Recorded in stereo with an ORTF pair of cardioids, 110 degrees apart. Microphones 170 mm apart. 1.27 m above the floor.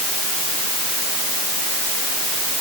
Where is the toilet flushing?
No toilet flushing in this recording.